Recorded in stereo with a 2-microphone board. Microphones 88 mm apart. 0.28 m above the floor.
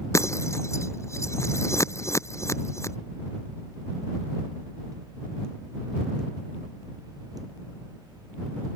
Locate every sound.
0.1 s breaking glass: 35° left (ahead or behind)